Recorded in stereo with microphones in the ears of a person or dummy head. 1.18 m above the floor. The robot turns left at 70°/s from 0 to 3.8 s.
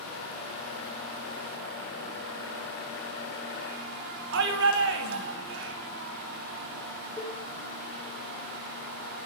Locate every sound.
4.3 s a shout: 60° right (ahead or behind), 2.5 m
7.2 s a cowbell: 15° left (ahead or behind), 5 m